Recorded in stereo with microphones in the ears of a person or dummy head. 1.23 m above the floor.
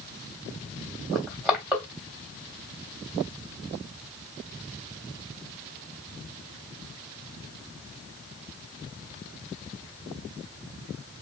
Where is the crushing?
5° right (ahead or behind), 0.9 m.